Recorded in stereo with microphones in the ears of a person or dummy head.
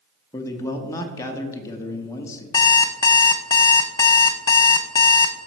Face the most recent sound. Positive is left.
turn(degrees=15)  # may be behind; listen again after turning